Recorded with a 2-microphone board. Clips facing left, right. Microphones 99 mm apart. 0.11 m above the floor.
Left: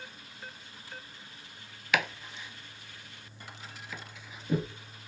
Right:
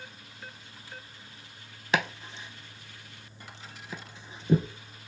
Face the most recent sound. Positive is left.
turn(degrees=-35)  # may be behind; listen again after turning